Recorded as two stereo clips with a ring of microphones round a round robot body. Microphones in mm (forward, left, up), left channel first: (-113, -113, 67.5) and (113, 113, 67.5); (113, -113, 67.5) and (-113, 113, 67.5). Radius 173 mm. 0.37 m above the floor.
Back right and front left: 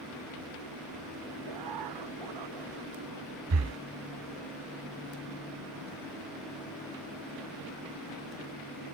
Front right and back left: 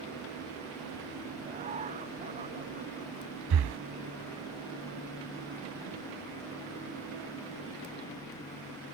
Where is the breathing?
95° left.